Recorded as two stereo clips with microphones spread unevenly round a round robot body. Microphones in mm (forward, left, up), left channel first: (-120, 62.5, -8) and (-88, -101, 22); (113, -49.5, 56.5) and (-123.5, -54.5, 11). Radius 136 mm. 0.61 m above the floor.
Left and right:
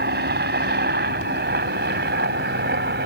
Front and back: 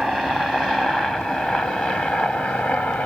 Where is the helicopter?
90° right; by 3.1 s 85° right.